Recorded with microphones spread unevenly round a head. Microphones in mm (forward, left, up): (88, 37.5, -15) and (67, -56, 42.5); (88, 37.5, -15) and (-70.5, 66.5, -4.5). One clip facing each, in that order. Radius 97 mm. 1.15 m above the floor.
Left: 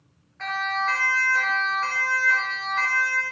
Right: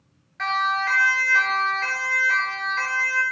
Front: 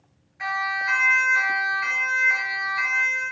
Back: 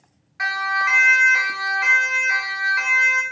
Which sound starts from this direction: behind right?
A siren, at 0.4 s.